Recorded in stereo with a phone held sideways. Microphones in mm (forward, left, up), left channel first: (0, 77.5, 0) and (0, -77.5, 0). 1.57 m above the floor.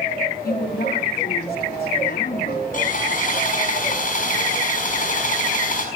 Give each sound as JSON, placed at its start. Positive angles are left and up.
{"t": 0.4, "sound": "a woman speaking", "side_deg": 80, "distance_m": 4.5}
{"t": 2.7, "sound": "sawing", "side_deg": 55, "distance_m": 5.5}